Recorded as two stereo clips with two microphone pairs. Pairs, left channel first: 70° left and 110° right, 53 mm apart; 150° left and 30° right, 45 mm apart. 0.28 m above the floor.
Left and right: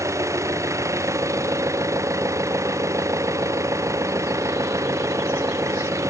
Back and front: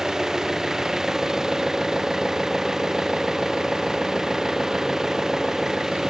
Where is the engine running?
110° right.